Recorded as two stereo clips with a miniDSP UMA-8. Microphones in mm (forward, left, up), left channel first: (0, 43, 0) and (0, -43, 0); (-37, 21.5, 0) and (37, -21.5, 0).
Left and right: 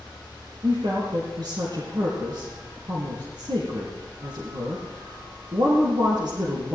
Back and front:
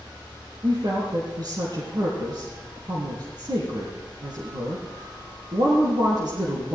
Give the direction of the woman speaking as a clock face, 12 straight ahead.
2 o'clock.